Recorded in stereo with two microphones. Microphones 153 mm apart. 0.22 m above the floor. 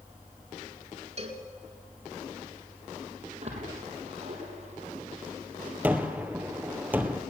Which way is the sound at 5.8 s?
10° right (ahead or behind).